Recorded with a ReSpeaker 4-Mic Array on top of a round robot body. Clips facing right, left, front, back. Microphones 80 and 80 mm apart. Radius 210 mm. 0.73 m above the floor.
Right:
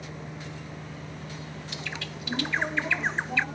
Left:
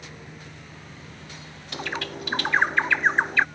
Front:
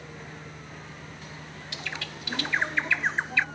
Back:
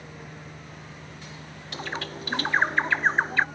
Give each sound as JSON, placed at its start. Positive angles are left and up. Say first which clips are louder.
{"t": 0.0, "sound": "a vehicle", "louder": "right 3 dB, even", "azimuth_deg": -100}
{"t": 1.7, "sound": "a bird", "louder": "left 9 dB, back 5 dB", "azimuth_deg": 130}